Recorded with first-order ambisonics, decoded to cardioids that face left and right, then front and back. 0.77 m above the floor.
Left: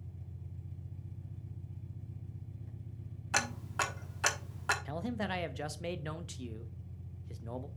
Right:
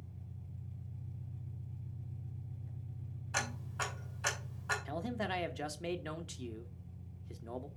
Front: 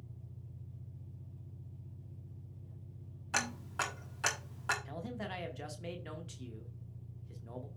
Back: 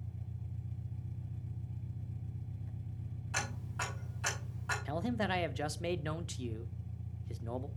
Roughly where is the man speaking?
Behind.